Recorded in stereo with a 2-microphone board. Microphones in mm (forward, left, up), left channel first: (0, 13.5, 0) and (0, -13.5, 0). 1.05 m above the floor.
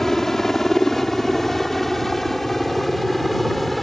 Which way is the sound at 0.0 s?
15° left (ahead or behind).